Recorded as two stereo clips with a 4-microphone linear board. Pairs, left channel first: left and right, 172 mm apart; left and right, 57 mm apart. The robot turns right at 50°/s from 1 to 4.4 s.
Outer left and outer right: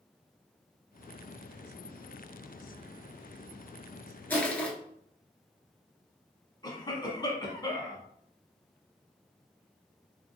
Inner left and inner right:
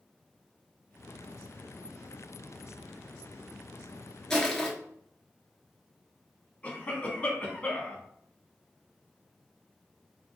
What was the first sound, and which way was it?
Crushing, 10° left (ahead or behind).